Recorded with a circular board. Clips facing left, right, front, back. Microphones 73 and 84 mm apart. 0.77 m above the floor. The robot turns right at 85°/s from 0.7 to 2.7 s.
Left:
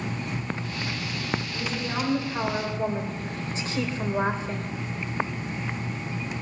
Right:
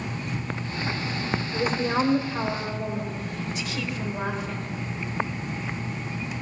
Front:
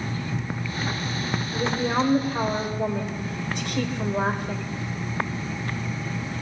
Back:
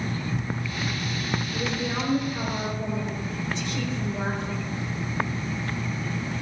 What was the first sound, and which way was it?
A woman speaking, 70° right.